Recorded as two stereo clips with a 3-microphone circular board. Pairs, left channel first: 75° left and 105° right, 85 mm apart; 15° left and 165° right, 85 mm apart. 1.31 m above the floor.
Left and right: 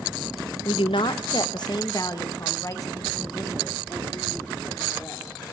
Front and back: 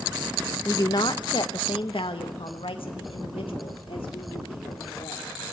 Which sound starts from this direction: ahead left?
A woman speaking, at 0.7 s.